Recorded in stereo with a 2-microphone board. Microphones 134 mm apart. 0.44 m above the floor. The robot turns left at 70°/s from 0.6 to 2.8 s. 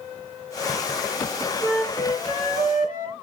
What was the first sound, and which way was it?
A flute, straight behind.